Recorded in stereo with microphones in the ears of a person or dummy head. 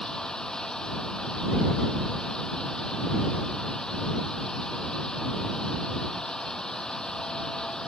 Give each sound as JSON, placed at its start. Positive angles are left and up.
{"t": 0.0, "sound": "a fan", "side_deg": 5}